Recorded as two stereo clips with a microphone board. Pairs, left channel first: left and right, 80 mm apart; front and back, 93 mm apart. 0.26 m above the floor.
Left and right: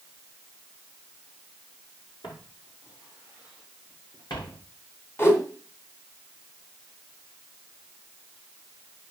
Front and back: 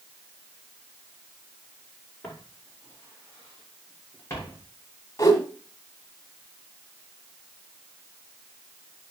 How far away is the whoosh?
About 2 m.